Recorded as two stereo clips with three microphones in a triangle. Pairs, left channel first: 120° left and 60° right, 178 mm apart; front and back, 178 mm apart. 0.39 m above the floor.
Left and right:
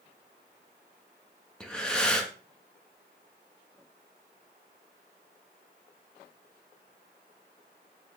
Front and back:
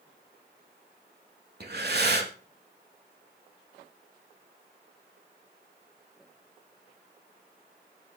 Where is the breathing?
155° right, 1.0 m.